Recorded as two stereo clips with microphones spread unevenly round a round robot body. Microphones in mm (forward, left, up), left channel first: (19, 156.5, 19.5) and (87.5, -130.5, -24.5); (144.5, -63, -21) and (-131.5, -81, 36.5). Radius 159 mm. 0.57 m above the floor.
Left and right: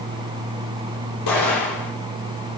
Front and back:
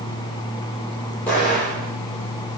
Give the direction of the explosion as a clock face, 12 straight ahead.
9 o'clock.